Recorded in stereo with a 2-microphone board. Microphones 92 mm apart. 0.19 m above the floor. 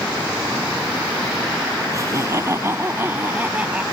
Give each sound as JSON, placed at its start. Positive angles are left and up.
{"t": 1.9, "sound": "laughter", "side_deg": -35}